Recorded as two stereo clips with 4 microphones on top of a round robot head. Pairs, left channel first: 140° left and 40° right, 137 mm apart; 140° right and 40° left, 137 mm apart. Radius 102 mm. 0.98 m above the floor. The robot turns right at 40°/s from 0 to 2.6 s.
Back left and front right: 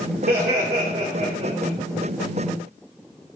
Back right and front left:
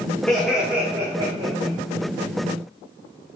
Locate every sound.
0.3 s laughter: 55° right, 1.9 m; by 1.8 s 5° left, 1.9 m